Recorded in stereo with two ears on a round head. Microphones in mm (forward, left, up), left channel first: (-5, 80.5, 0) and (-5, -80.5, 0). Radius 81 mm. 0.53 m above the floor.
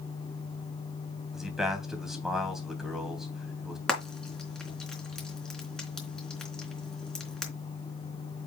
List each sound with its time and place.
1.3 s a man speaking: 5° right (ahead or behind), 3 m
3.9 s frying: 5° left (ahead or behind), 3.5 m